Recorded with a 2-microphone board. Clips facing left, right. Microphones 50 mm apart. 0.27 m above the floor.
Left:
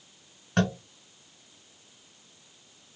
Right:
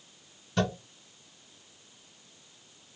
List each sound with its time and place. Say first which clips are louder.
0.6 s tapping: left 3 dB; 55° left (ahead or behind), 1.7 m